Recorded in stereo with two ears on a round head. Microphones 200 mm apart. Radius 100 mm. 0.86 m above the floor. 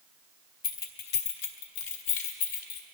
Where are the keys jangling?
40° left (ahead or behind), 1.3 m; by 2.8 s 80° left, 1.8 m.